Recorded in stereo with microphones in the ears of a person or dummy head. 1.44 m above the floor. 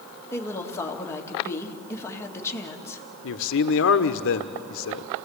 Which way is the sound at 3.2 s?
65° left (ahead or behind).